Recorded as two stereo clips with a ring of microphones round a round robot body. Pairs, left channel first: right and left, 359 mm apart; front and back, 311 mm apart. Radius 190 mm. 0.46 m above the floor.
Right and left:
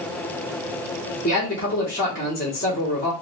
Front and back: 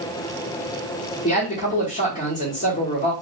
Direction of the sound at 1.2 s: 45° right.